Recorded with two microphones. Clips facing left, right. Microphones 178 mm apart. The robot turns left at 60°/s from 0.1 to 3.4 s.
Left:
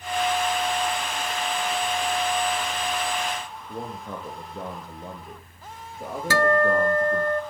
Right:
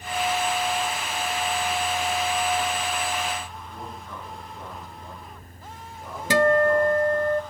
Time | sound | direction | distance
3.7 | a man speaking | 60° left (ahead or behind) | 6.5 m
6.3 | a guitar | 20° right (ahead or behind) | 0.6 m